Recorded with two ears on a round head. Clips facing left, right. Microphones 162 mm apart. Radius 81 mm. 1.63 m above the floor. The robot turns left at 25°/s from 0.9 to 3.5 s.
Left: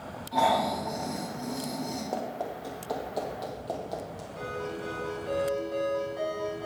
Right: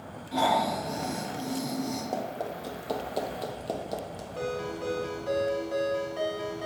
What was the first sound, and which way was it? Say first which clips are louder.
Snoring: even; 45° right (ahead or behind).